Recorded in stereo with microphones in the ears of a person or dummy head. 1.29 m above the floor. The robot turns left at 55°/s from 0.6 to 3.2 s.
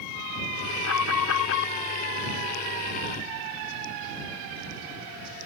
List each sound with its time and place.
0.8 s an alarm: 105° left; by 1.7 s 60° left